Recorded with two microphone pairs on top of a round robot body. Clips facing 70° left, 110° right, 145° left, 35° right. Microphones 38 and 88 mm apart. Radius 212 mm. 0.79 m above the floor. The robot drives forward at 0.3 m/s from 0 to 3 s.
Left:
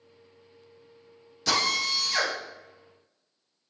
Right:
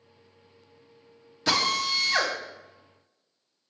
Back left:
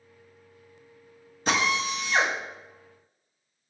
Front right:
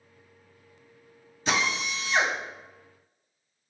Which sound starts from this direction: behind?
A drill, at 1.5 s.